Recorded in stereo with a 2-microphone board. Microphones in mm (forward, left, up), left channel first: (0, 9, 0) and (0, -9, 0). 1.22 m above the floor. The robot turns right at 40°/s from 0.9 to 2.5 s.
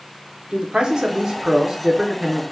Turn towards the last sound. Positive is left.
turn(degrees=-5)